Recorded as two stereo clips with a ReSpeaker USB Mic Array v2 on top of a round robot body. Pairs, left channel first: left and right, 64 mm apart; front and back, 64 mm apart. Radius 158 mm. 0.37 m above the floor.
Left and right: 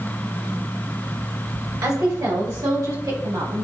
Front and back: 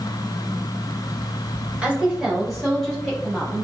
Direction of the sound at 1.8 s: 105° right.